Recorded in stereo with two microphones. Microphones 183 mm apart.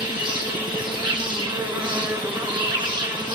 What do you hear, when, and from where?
0.0 s an insect: 25° right (ahead or behind), 1.0 m